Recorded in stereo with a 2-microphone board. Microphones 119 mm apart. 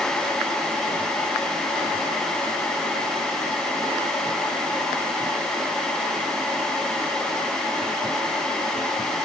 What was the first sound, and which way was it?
Only background noise.